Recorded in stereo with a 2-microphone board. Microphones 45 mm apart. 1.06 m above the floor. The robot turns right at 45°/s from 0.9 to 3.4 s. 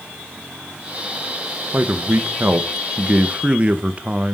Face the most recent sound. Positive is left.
turn(degrees=-40)